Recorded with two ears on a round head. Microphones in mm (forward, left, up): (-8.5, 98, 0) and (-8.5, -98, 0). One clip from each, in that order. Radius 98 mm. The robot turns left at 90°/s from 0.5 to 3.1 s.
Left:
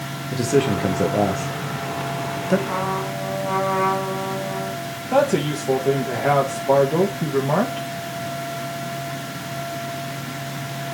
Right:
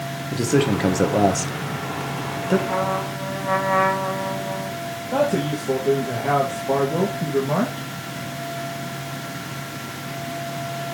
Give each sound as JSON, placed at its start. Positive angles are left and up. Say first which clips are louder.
{"t": 0.3, "sound": "a man speaking", "louder": "left 1 dB", "side_deg": -5, "distance_m": 1.0}
{"t": 2.7, "sound": "a trumpet", "louder": "right 1 dB", "azimuth_deg": 10, "distance_m": 3.0}
{"t": 5.1, "sound": "a man speaking", "louder": "left 3 dB", "side_deg": 70, "distance_m": 1.5}